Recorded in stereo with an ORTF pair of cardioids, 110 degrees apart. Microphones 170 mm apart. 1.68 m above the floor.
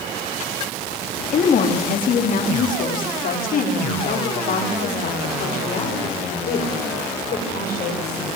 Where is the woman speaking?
50° left, 3.5 m; by 8.3 s 65° left, 8 m.